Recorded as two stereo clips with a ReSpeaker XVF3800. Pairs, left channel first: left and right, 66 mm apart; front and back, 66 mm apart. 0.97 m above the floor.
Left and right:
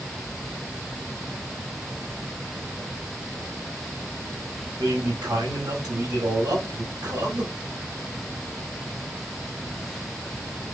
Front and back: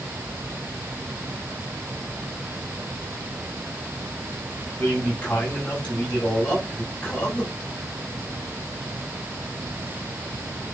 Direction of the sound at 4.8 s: 70° right.